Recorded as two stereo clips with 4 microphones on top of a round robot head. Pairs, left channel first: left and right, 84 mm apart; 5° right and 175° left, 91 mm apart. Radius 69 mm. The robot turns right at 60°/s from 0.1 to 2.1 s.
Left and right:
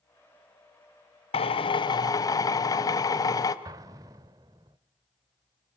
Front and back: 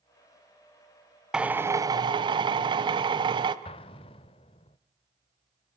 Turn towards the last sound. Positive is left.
turn(degrees=-35)